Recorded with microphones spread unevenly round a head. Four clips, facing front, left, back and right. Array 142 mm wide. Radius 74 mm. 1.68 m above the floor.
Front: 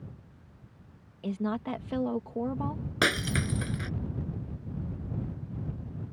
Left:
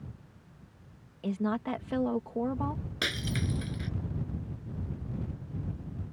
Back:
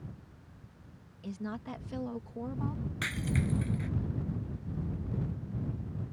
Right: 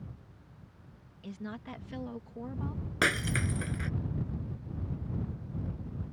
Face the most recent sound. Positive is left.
turn(degrees=-20)